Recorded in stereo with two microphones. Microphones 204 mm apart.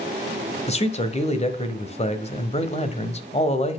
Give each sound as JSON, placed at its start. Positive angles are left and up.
{"t": 0.7, "sound": "a man speaking", "side_deg": 35, "distance_m": 1.1}